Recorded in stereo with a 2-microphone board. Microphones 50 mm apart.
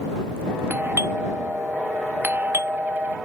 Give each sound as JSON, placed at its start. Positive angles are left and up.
{"t": 0.7, "sound": "a doorbell", "side_deg": -40}